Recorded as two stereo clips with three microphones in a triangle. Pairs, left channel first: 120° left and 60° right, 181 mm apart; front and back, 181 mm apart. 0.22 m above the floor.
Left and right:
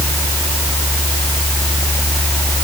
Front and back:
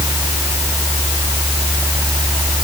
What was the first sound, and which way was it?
Only background noise.